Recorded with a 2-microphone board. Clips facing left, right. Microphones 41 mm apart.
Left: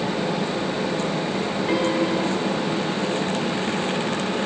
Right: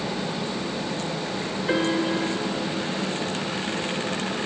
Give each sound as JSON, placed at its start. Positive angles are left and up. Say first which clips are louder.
{"t": 1.7, "sound": "a piano", "louder": "left 1 dB", "side_deg": 15, "distance_m": 2.0}